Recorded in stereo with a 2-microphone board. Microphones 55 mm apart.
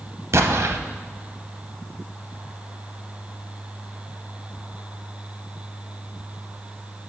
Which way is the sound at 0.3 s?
60° right (ahead or behind).